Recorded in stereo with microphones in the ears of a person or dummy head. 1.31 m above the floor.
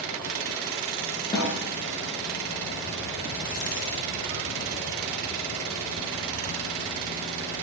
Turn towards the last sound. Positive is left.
turn(degrees=30)  # may be behind; listen again after turning